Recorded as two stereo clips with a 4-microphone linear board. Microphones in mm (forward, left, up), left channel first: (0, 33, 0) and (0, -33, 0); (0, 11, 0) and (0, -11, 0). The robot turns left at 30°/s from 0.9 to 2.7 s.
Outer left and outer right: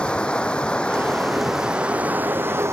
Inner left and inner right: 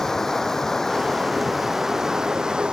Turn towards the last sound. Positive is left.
turn(degrees=-40)